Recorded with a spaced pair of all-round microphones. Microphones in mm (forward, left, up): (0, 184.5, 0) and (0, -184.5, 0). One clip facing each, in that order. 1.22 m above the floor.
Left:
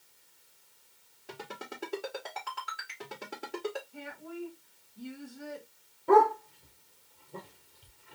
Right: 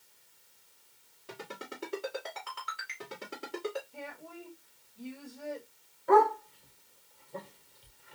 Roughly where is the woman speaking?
Left.